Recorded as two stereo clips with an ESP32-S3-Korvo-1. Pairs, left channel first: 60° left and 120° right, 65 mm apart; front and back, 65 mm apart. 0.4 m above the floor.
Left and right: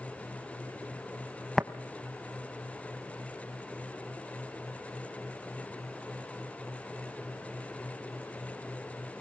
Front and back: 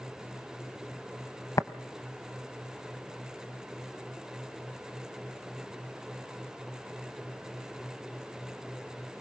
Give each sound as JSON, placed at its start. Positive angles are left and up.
{"t": 1.6, "sound": "tapping", "azimuth_deg": -20, "distance_m": 0.8}